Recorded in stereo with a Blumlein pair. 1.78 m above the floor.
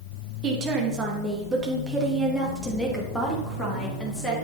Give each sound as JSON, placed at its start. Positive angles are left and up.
{"t": 0.4, "sound": "a woman speaking", "azimuth_deg": -30, "distance_m": 3.5}